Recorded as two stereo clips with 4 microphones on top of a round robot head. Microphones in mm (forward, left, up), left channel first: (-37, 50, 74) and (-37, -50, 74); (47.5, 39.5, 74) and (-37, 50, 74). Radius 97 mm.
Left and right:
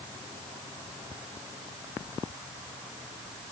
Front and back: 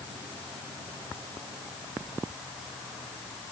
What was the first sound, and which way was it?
Only background noise.